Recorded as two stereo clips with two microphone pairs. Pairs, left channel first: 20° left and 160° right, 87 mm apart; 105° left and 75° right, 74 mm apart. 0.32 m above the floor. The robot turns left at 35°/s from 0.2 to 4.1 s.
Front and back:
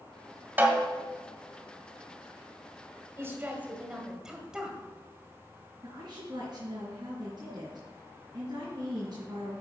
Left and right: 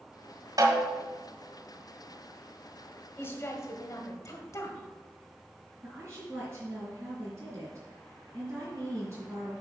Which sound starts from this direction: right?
A snare drum, at 0.6 s.